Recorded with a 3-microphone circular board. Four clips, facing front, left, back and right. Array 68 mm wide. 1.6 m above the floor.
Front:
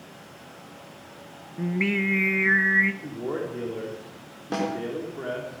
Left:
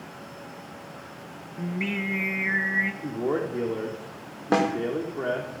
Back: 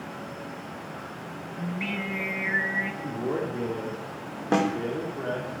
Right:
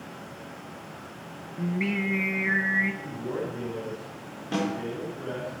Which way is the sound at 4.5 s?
115° left.